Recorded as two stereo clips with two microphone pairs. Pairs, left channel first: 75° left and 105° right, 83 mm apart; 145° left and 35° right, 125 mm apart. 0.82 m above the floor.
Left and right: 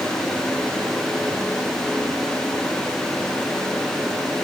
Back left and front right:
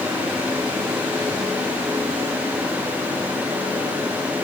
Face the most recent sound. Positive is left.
No sound to turn to.